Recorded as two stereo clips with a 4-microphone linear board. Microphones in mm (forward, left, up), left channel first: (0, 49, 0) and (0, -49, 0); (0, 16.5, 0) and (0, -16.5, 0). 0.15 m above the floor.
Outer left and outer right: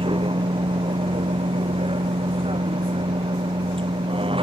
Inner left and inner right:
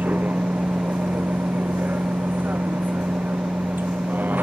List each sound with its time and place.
0.0 s a vehicle: 70° right (ahead or behind); by 4.4 s 75° right (ahead or behind)